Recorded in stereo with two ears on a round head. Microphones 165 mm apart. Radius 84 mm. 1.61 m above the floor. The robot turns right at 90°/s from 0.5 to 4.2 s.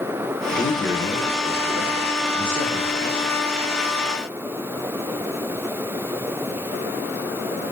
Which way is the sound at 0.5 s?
150° left.